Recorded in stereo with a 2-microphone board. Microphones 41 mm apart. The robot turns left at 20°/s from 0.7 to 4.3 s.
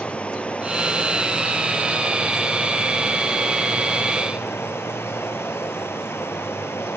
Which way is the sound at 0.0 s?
150° left.